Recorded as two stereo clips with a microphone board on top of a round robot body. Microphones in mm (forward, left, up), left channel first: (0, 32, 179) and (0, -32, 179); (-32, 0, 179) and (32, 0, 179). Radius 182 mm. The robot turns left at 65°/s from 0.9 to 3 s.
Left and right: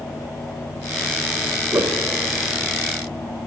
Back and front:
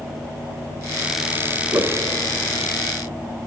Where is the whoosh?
45° right, 1.1 m; by 2.0 s 65° right, 1.1 m.